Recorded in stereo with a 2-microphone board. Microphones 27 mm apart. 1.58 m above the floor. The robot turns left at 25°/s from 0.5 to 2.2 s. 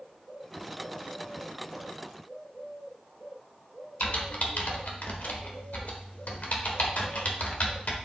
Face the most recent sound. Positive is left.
turn(degrees=65)  # may be behind; listen again after turning